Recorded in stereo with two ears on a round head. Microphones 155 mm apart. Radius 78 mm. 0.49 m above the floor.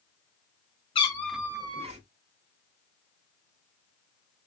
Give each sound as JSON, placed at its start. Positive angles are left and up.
{"t": 0.9, "sound": "a cat meowing", "side_deg": 30, "distance_m": 0.6}